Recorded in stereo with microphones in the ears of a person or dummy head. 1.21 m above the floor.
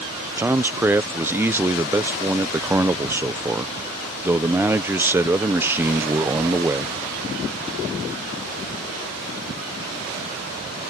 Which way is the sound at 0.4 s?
10° right (ahead or behind).